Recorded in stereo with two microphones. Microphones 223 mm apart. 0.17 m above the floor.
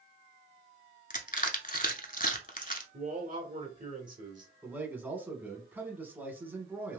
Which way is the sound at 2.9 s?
35° right (ahead or behind).